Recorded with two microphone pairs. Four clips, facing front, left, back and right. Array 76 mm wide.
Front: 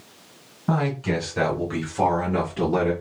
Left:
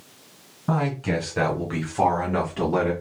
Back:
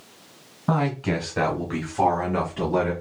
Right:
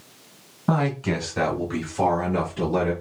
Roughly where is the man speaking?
Behind right.